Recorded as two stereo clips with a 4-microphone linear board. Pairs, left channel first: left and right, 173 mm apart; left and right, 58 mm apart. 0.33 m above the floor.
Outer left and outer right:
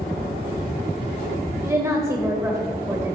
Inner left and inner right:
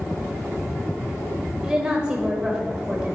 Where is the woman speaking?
15° right (ahead or behind), 1.0 m.